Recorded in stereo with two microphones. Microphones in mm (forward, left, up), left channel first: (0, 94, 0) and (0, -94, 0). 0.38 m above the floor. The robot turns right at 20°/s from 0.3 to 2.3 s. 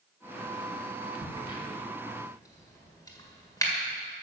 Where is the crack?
30° left (ahead or behind), 1.6 m; by 3.7 s 20° left (ahead or behind), 1.6 m.